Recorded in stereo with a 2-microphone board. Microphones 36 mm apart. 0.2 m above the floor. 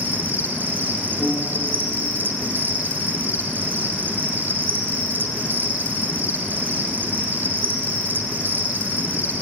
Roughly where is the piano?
Left.